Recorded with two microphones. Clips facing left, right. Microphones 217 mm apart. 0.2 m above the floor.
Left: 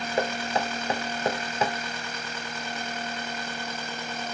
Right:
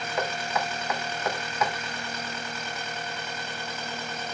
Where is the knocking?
30° left (ahead or behind), 0.7 m.